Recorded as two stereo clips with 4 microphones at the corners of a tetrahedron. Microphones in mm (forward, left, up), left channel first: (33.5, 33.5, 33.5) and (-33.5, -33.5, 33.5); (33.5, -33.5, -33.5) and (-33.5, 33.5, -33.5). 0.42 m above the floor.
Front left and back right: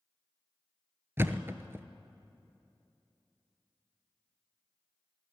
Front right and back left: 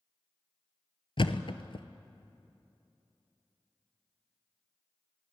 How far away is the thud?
About 0.9 m.